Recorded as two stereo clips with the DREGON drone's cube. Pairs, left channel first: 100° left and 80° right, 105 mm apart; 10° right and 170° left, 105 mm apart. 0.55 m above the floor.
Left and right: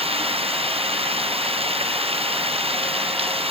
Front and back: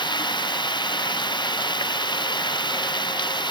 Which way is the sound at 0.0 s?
55° right.